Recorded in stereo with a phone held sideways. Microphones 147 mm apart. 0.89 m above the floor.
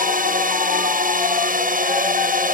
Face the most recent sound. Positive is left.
turn(degrees=-60)  # may be behind; listen again after turning